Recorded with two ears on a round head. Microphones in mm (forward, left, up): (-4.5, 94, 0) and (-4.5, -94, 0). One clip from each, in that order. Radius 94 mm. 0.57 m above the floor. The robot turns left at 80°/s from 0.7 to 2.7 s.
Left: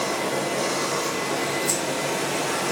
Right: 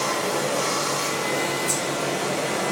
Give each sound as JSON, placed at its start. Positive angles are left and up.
{"t": 0.0, "sound": "running water", "azimuth_deg": -95, "distance_m": 1.2}
{"t": 1.7, "sound": "keys jangling", "side_deg": 30, "distance_m": 1.3}